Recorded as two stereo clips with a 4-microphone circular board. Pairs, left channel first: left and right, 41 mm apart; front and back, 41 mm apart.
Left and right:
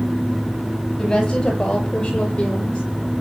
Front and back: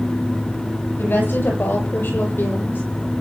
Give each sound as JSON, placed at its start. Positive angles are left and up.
{"t": 1.0, "sound": "a woman speaking", "azimuth_deg": 25, "distance_m": 9.5}